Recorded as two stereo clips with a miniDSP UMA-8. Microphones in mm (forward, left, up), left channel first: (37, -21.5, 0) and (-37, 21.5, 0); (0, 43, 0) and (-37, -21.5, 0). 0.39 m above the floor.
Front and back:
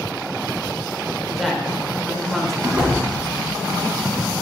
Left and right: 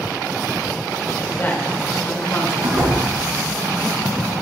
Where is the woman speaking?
60° left, 1.2 m.